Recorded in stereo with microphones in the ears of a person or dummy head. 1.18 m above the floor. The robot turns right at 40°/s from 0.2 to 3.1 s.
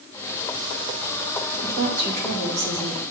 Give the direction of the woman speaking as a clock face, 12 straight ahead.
5 o'clock.